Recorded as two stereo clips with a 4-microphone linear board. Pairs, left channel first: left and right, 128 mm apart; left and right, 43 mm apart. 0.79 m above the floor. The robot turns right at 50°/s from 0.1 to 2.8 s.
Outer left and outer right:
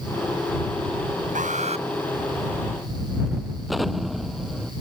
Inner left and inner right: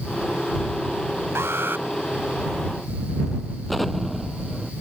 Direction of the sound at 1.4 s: 75° right (ahead or behind).